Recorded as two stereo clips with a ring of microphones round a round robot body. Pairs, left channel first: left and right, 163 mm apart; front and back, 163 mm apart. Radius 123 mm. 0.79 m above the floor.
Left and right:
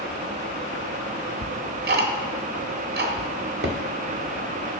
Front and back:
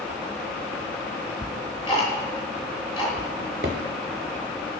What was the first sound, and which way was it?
Ticking, 70° right.